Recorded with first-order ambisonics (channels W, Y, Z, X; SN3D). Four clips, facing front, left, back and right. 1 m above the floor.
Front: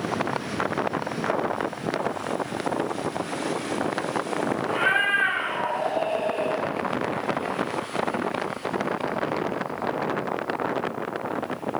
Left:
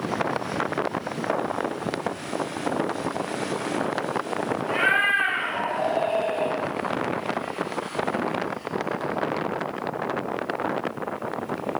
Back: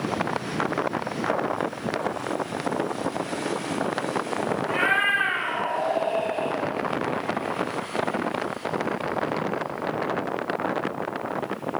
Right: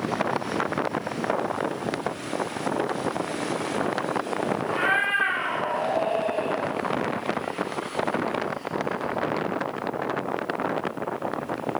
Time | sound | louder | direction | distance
4.7 | a cat meowing | left 3 dB, even | 120° left | 3 m